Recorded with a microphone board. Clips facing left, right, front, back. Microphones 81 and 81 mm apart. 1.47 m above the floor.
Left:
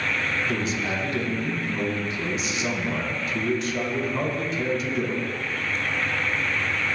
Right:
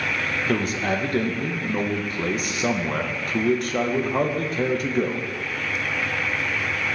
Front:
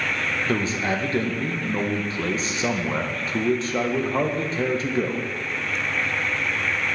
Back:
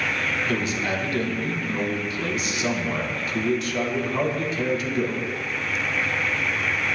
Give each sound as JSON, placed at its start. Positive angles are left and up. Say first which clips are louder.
{"t": 0.5, "sound": "a man speaking", "louder": "right 3 dB, front 4 dB", "azimuth_deg": -55, "distance_m": 0.9}